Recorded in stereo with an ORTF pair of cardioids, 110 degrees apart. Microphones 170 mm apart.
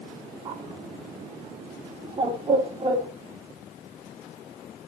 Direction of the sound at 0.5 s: 25° right.